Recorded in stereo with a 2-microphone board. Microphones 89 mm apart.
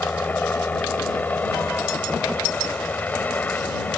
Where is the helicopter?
20° left (ahead or behind).